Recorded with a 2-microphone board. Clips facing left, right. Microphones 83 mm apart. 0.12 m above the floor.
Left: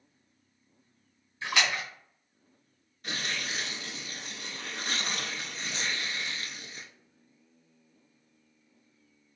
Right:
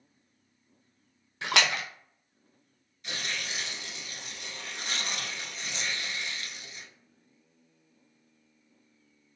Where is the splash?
80° right, 0.7 m.